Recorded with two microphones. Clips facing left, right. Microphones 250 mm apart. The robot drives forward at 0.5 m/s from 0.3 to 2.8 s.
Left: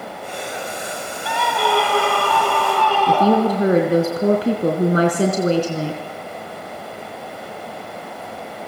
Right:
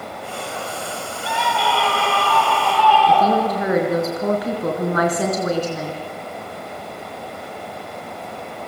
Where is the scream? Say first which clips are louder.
Left 3 dB; 60° left (ahead or behind), 7 m; by 3.7 s 55° left (ahead or behind), 7.5 m.